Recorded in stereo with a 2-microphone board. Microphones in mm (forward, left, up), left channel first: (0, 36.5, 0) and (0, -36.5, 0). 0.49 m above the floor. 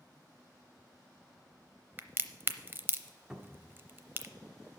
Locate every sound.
2.0 s a crack: 30° right (ahead or behind), 0.6 m
3.3 s a cupboard door: 10° right (ahead or behind), 1.0 m